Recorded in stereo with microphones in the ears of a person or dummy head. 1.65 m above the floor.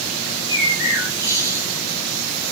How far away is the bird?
About 3 m.